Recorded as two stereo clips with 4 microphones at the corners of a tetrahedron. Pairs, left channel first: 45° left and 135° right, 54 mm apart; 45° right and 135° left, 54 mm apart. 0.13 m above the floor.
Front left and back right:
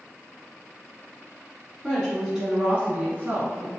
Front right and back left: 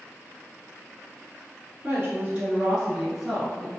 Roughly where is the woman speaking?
Behind left.